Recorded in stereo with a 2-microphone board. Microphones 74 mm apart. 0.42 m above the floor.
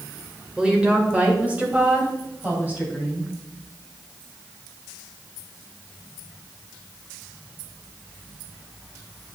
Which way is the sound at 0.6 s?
15° right (ahead or behind).